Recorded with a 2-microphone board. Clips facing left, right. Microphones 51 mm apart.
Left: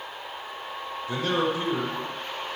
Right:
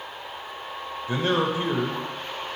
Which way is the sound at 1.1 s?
30° right (ahead or behind).